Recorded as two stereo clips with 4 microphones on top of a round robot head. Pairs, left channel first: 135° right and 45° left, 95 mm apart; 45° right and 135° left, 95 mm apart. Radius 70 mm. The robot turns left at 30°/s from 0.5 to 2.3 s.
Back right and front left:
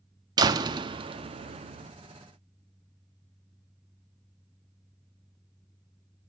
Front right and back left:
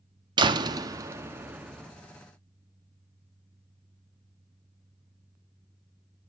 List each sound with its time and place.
0.4 s a door slam: 95° left, 1.0 m; by 1.9 s 50° left, 1.0 m